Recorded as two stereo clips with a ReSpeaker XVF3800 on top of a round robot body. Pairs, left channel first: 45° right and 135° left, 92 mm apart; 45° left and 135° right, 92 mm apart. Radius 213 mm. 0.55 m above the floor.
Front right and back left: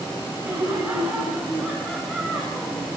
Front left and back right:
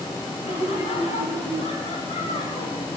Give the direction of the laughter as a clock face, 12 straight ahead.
10 o'clock.